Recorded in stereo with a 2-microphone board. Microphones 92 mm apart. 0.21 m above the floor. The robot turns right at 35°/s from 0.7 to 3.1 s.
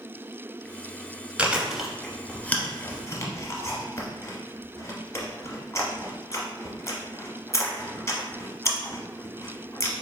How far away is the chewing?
About 0.7 m.